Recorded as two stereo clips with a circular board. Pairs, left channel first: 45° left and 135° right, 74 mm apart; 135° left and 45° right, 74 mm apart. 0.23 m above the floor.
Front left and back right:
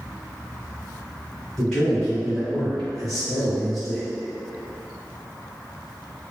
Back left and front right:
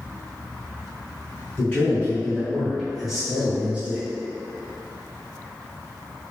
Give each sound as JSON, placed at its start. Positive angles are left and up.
{"t": 1.6, "sound": "a man speaking", "azimuth_deg": 120, "distance_m": 1.8}